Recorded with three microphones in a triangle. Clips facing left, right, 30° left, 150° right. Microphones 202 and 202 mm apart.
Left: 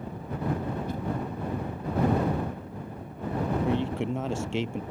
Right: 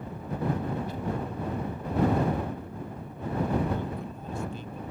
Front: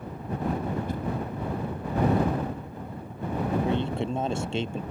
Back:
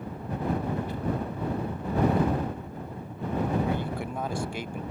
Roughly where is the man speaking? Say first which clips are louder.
Left 5 dB, front 3 dB; left.